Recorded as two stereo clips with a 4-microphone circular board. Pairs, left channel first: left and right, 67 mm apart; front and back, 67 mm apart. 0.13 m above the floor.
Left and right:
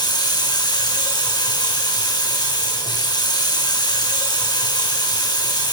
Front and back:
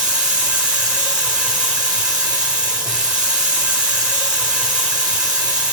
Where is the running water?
105° left, 3 m.